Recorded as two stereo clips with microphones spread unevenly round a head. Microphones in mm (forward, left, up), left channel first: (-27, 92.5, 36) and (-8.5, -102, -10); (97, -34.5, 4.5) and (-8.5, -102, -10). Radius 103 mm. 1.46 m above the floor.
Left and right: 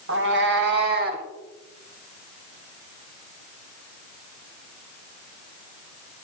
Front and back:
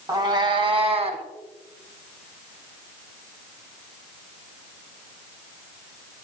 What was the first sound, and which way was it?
A cat meowing, 95° right.